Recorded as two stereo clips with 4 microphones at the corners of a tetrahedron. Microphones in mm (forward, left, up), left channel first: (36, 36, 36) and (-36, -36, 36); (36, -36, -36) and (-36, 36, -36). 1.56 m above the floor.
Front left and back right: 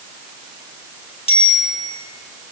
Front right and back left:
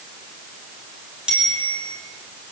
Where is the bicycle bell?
55° left, 9 m.